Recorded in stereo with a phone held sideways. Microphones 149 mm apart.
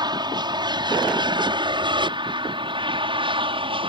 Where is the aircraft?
30° right (ahead or behind); by 3.9 s 35° right (ahead or behind).